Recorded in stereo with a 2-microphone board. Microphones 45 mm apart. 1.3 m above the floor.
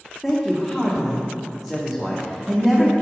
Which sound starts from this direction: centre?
A man speaking, at 0.2 s.